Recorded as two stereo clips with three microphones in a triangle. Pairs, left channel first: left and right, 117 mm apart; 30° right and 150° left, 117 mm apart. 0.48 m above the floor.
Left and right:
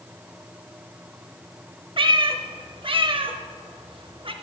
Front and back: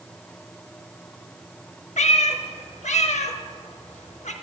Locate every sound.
2.0 s a cat meowing: 45° right, 0.6 m